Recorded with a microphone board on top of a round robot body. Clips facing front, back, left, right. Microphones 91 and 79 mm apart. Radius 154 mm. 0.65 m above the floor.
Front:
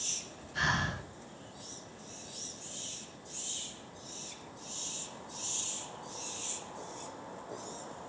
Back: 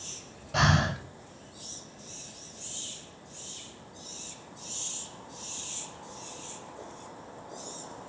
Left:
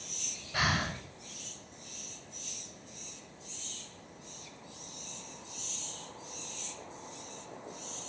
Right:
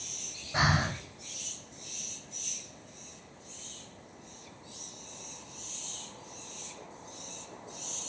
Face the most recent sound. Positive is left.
turn(degrees=-160)